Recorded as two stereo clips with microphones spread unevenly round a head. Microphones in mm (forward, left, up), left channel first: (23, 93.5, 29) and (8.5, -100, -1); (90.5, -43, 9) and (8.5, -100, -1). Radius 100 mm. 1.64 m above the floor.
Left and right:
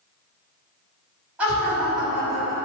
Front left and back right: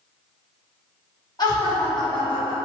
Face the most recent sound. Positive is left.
turn(degrees=0)